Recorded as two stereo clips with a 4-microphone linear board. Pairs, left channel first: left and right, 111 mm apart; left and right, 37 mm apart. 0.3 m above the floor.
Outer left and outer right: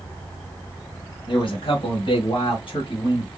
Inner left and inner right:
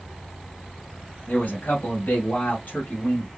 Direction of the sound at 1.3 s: 50° left (ahead or behind).